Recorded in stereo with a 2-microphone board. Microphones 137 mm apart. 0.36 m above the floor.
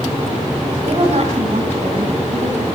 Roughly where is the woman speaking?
Right.